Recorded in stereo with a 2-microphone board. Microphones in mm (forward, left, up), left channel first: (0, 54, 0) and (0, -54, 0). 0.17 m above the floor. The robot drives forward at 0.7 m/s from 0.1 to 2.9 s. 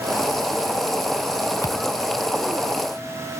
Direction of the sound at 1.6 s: 30° left (ahead or behind).